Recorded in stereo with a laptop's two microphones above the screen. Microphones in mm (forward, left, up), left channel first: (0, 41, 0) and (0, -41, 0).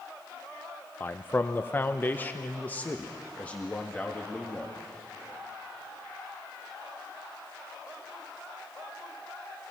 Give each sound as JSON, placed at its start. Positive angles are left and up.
{"t": 1.0, "sound": "a man speaking", "side_deg": 25, "distance_m": 0.7}